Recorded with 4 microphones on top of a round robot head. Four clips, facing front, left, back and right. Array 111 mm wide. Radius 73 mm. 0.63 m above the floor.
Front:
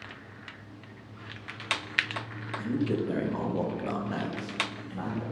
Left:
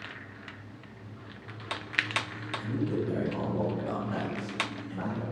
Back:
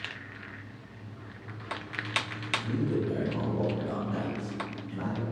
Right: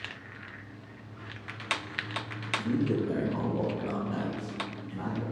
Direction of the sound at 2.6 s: 65° right.